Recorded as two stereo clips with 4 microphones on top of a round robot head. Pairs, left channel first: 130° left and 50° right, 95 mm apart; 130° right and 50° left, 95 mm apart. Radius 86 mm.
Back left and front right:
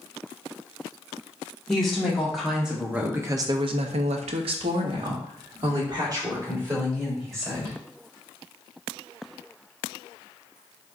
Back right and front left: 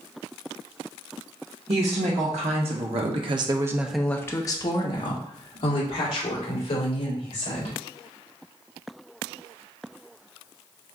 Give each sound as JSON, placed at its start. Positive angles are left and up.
{"t": 1.7, "sound": "a woman speaking", "azimuth_deg": 45, "distance_m": 1.6}